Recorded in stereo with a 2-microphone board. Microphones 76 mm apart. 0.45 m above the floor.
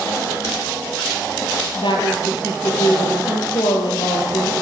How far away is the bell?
No bell in this recording.